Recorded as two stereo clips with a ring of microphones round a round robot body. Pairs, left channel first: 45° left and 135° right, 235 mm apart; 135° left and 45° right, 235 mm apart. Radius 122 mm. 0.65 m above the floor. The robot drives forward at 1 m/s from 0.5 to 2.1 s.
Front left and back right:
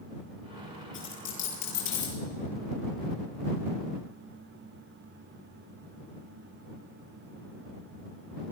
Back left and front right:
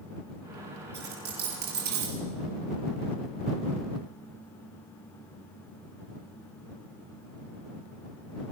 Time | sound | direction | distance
0.9 | a dropped coin | 5° left | 7.5 m